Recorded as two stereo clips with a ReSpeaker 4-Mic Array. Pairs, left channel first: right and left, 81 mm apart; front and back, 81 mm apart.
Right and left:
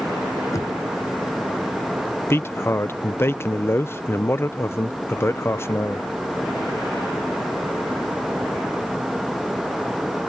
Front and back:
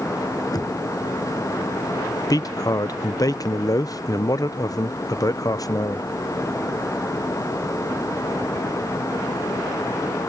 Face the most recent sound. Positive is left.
turn(degrees=-35)